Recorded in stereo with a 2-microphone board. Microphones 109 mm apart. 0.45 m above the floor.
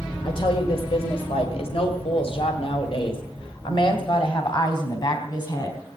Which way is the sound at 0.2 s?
55° left (ahead or behind).